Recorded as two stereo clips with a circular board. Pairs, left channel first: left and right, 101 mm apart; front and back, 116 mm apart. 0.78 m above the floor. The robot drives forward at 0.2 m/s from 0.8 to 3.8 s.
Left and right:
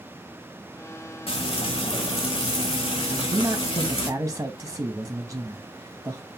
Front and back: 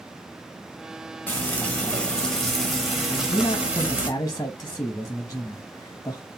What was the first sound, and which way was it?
Frying, 70° left.